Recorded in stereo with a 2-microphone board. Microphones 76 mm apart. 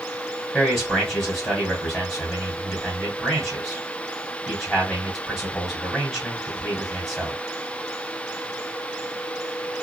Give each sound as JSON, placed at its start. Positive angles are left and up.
{"t": 0.5, "sound": "a man speaking", "side_deg": 0, "distance_m": 3.0}